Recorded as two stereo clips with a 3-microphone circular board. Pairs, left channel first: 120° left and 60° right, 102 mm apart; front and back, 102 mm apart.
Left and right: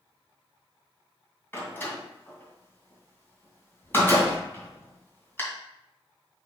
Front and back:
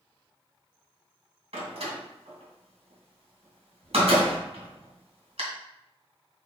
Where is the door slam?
170° right, 2.5 m.